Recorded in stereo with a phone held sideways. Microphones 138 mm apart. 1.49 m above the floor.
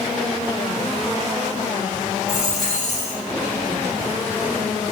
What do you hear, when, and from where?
2.3 s a dropped coin: 30° left (ahead or behind), 1.7 m